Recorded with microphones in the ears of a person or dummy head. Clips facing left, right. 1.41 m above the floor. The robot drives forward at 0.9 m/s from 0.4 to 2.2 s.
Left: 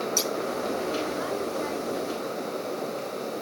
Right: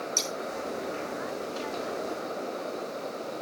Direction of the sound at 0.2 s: 10° left (ahead or behind).